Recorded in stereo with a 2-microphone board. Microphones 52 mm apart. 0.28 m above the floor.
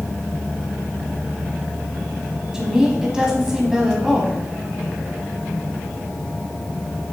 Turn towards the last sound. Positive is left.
turn(degrees=-10)  # may be behind; listen again after turning